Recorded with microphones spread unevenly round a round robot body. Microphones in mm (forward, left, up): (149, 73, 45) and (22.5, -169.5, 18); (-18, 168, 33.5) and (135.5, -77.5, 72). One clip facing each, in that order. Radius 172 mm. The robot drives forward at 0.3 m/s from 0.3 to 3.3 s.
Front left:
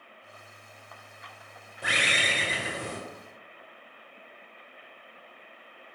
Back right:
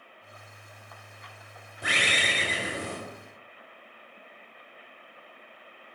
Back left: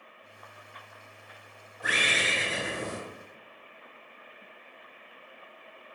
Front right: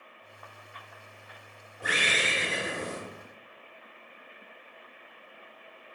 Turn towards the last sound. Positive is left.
turn(degrees=-140)